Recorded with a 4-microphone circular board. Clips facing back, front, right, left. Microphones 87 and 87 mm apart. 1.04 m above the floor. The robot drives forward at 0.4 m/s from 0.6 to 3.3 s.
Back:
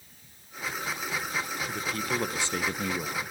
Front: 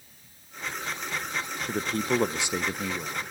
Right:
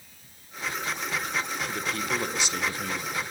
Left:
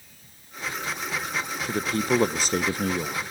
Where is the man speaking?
40° left, 0.6 m; by 3.2 s 110° left, 0.5 m.